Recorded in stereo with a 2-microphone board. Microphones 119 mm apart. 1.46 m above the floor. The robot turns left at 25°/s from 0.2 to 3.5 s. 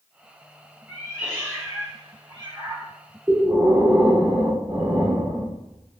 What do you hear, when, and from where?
0.9 s a cat meowing: 5° right, 1.7 m; by 2.9 s 55° right, 1.7 m
3.3 s breathing: 20° right (ahead or behind), 1.1 m